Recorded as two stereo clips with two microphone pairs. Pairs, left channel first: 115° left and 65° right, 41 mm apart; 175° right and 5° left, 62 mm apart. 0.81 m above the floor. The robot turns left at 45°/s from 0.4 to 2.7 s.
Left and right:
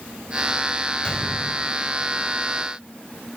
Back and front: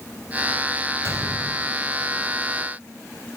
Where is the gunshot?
50° left, 4.5 m; by 1.6 s 20° left, 4.5 m.